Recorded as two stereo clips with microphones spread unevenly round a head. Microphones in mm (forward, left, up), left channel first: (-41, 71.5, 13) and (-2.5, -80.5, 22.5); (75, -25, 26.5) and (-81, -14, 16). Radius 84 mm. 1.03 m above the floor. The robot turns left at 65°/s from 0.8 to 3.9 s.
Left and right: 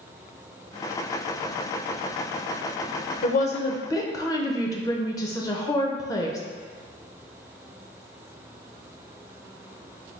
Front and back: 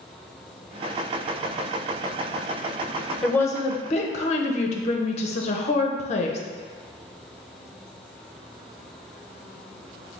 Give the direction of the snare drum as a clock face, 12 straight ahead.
No snare drum in this recording.